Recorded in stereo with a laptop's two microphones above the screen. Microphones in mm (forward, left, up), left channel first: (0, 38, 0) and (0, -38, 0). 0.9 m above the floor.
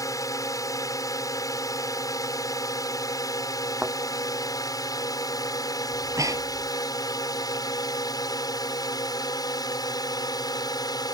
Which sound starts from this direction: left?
A drone, at 0.0 s.